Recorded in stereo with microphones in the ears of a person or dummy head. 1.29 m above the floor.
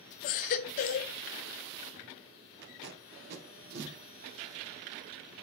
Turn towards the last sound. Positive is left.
turn(degrees=-65)  # may be behind; listen again after turning